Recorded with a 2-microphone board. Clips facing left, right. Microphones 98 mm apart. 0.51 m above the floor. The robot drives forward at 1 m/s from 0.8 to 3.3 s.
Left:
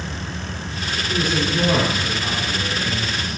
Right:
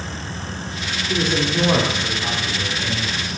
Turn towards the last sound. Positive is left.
turn(degrees=-15)  # may be behind; listen again after turning